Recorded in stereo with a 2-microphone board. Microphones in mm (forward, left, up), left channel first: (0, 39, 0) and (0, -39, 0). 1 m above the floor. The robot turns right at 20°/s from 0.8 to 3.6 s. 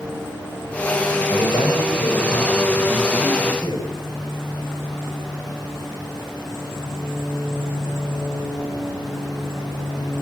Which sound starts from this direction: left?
A man speaking, at 1.3 s.